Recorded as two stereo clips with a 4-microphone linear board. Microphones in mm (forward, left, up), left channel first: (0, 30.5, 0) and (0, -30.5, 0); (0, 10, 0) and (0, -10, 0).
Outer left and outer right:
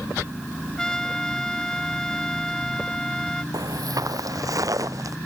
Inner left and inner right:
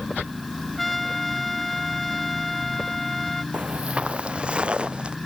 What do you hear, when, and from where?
0.8 s a trumpet: 10° left (ahead or behind)
3.5 s footsteps: 80° right; by 5.2 s 65° right (ahead or behind)